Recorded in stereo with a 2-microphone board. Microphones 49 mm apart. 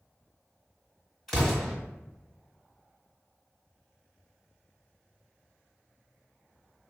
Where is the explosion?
10° left (ahead or behind), 1.5 m.